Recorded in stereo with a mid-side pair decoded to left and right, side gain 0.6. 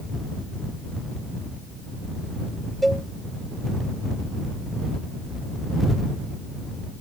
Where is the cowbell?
5° right.